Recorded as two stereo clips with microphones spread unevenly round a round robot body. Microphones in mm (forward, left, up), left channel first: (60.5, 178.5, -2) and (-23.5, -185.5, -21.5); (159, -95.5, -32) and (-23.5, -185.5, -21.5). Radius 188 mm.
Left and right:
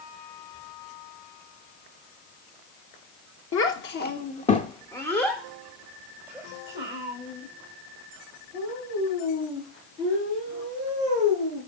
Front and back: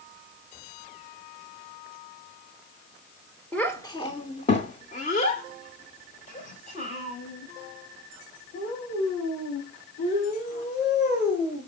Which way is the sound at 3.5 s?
100° left.